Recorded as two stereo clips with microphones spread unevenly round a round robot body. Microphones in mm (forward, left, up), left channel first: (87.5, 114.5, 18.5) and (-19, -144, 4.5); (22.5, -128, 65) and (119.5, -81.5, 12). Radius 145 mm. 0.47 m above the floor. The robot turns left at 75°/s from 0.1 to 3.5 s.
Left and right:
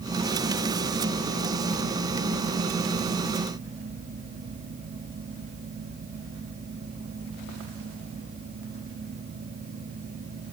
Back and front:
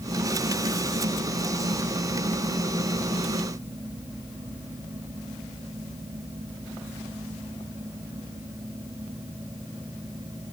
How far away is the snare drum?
I don't hear a snare drum.